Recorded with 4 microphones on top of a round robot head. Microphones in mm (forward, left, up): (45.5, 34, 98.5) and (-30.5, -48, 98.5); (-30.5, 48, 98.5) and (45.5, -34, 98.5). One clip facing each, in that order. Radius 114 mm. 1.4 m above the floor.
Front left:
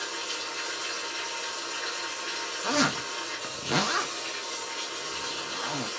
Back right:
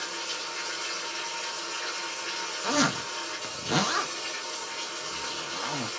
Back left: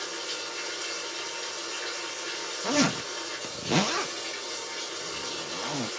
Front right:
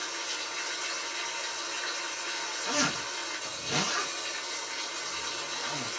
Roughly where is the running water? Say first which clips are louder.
Front left 1 dB, back left 2 dB; behind left.